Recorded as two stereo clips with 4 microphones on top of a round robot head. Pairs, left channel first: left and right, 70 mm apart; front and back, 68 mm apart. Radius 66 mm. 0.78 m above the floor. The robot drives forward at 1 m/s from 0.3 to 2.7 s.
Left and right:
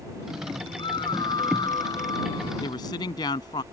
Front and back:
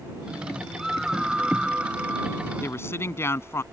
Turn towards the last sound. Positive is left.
turn(degrees=50)